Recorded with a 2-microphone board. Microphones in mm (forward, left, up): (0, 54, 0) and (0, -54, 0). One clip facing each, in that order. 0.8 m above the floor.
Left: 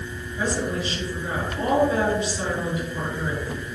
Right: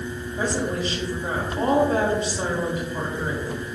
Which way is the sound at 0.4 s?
45° right (ahead or behind).